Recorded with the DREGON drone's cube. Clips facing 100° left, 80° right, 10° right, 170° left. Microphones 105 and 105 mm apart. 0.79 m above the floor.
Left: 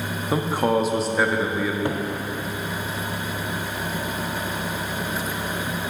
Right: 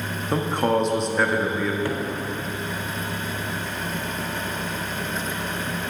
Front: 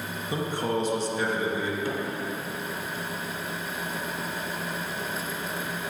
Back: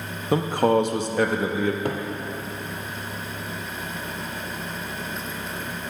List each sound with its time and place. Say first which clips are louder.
0.3 s a man speaking: even, back 9 dB; 175° right, 0.6 m
1.9 s a cupboard door: left 1 dB, back 3 dB; 165° left, 0.7 m